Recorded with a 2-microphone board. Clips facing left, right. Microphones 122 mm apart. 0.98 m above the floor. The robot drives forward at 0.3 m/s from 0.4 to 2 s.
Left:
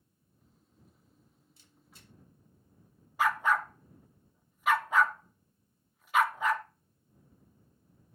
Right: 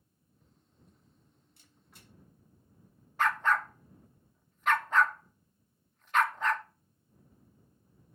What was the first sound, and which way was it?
A camera shutter, 60° right (ahead or behind).